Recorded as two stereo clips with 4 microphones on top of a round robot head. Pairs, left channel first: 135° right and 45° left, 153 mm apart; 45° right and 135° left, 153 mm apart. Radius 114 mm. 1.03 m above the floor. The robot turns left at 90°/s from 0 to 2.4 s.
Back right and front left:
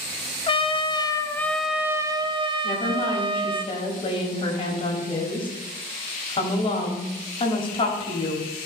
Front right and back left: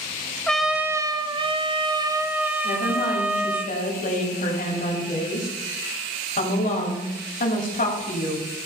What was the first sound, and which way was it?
A trumpet, 125° right.